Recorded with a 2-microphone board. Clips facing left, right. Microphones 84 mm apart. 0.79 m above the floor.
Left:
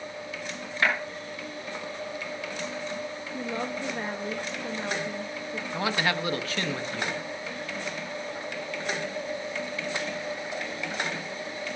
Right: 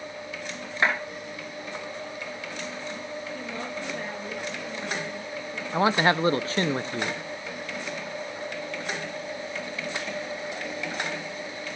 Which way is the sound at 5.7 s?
35° right (ahead or behind).